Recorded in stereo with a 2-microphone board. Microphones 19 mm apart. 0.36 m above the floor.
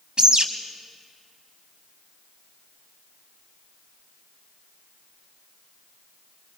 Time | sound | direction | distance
0.2 | a bird | 55° right (ahead or behind) | 1.1 m